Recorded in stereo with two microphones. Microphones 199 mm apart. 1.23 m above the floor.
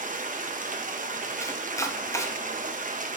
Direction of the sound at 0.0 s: 45° right (ahead or behind).